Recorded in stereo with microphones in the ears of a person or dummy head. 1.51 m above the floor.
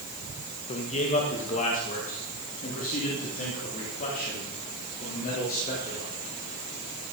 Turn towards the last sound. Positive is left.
turn(degrees=45)  # may be behind; listen again after turning